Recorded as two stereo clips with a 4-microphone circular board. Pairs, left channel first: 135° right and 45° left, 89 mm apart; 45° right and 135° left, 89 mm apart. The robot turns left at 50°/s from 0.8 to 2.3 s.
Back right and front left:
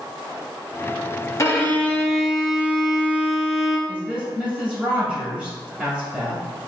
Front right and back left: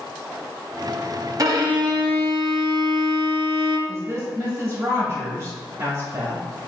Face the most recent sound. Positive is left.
turn(degrees=110)